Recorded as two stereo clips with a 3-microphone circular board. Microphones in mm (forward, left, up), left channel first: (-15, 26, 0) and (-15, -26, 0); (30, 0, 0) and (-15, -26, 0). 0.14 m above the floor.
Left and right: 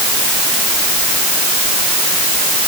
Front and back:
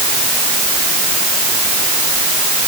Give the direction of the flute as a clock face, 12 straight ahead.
No flute in this recording.